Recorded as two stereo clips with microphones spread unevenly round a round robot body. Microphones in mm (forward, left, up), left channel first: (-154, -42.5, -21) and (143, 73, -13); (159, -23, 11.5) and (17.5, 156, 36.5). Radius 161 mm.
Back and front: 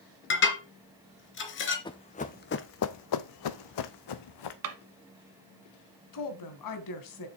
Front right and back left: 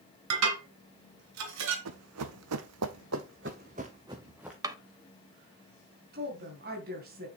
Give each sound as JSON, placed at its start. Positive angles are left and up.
{"t": 0.3, "sound": "dishes clattering", "azimuth_deg": 145, "distance_m": 3.0}
{"t": 1.9, "sound": "running footsteps", "azimuth_deg": 125, "distance_m": 1.2}
{"t": 4.6, "sound": "a drawer", "azimuth_deg": 55, "distance_m": 1.3}
{"t": 6.1, "sound": "a woman speaking", "azimuth_deg": -175, "distance_m": 2.5}